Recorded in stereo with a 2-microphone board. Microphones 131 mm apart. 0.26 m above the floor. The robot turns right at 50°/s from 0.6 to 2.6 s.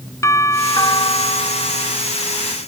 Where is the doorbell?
30° left; by 2.0 s 100° left.